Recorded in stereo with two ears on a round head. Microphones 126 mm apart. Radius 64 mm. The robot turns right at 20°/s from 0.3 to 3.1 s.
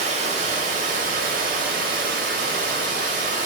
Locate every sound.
0.0 s running water: 120° right, 0.9 m; by 3.5 s 65° right, 0.9 m